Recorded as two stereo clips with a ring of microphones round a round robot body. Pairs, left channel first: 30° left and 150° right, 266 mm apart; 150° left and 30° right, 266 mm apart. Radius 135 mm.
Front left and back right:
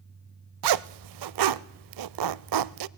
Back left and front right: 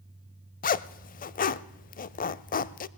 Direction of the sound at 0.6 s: 150° right.